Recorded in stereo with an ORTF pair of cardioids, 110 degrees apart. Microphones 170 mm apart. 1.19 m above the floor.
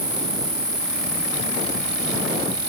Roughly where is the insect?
Ahead.